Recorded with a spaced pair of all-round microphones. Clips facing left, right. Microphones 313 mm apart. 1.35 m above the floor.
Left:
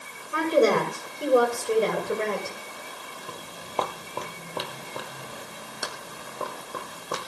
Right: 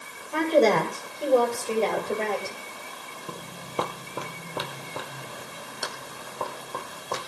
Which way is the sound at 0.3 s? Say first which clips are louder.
Even; 10° left (ahead or behind).